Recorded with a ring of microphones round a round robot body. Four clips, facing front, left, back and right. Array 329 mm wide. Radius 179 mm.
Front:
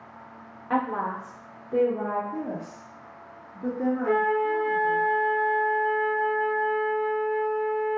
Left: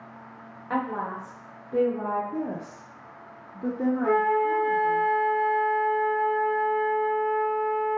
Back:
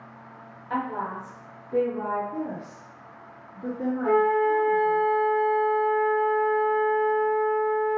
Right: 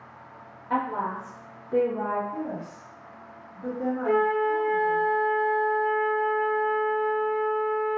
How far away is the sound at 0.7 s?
About 0.9 m.